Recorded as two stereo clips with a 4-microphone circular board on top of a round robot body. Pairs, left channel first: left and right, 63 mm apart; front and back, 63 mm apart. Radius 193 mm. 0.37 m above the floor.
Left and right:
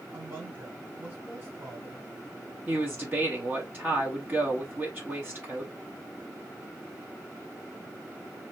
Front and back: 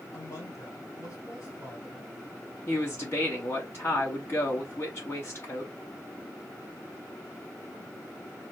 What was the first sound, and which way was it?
A woman speaking, 35° right.